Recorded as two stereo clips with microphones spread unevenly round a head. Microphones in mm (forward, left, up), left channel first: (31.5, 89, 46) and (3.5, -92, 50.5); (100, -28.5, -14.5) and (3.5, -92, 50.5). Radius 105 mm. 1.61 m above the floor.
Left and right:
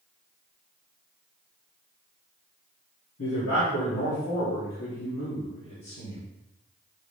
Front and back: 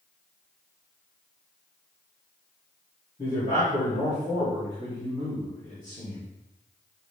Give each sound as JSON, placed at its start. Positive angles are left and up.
{"t": 3.2, "sound": "a man speaking", "azimuth_deg": 100, "distance_m": 3.0}